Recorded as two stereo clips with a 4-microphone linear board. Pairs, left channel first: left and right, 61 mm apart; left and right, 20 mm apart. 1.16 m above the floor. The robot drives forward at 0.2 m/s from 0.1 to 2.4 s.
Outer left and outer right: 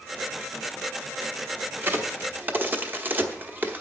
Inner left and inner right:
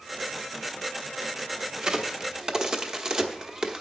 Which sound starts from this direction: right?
A crack, at 1.8 s.